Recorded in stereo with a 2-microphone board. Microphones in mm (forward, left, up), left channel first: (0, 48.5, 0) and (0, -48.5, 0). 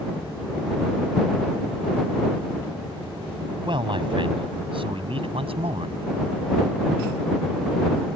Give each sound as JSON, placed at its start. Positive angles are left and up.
{"t": 3.6, "sound": "a man speaking", "side_deg": -55}